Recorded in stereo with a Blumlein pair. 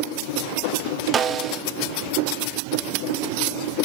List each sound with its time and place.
1.1 s a snare drum: 20° right, 0.7 m